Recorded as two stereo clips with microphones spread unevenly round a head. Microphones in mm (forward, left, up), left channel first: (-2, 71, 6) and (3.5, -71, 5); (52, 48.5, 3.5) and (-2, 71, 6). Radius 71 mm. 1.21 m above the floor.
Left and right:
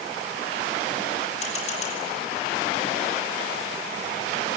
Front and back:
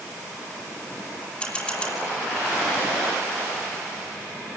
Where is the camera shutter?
50° left, 8.5 m.